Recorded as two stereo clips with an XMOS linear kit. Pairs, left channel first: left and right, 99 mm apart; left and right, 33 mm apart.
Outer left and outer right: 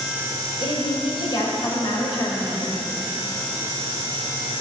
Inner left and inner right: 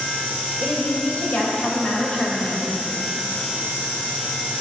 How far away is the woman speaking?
About 4 m.